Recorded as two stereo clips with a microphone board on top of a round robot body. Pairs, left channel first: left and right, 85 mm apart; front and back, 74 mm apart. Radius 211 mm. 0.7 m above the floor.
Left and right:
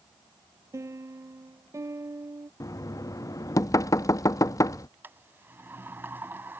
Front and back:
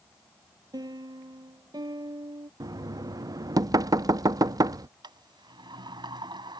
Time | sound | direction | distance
0.7 | a piano | 150° right | ?
2.6 | knocking | 140° left | ?
5.0 | a sliding door | 160° right | ?